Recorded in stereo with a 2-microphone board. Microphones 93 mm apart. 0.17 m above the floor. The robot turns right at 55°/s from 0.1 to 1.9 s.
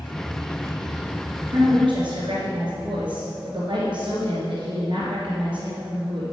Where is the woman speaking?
55° right (ahead or behind), 3 m; by 6.2 s 65° right (ahead or behind), 3 m.